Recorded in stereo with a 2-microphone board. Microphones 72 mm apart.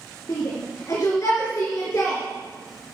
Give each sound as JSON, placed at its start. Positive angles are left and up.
{"t": 0.3, "sound": "a shout", "side_deg": 45, "distance_m": 3.5}